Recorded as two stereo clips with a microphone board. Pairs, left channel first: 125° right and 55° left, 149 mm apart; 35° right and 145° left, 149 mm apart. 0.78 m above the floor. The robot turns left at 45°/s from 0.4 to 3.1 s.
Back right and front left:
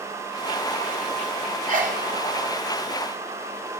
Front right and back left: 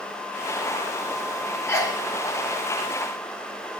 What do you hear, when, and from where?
1.7 s a sneeze: 40° left, 1.9 m; by 2.0 s 20° left, 1.9 m